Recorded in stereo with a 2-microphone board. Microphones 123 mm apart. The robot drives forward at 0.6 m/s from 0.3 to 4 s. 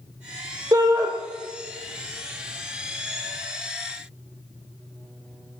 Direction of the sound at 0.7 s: 30° right (ahead or behind).